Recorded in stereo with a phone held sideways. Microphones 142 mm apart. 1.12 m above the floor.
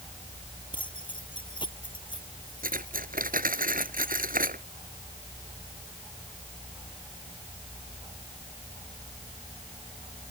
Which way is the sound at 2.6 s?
80° right.